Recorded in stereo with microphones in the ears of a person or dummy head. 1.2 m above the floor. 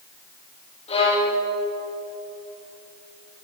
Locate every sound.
0.9 s a violin: 35° left (ahead or behind), 9.5 m